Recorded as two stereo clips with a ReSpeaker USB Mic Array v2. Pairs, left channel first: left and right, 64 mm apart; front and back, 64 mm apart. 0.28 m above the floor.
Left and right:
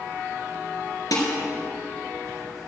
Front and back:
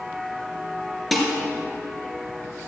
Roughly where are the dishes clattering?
Left.